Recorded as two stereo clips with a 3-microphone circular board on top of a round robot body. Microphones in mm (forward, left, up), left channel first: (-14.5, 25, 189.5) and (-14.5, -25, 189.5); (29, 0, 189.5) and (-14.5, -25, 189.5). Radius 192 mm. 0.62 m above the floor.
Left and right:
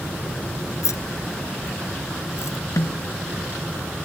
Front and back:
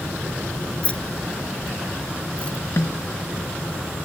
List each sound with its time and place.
0.8 s keys jangling: 95° left
2.8 s a snare drum: 70° left